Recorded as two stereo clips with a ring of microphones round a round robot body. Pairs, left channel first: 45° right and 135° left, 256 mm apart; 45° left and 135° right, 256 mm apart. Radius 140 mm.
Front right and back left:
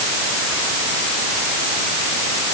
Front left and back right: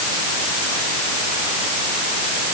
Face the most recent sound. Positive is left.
No sound to turn to.